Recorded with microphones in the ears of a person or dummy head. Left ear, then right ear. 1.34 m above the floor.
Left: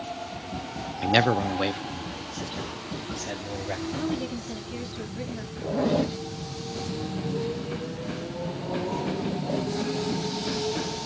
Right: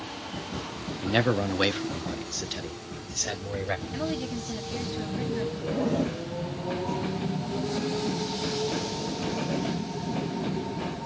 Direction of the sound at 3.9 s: 10° right (ahead or behind).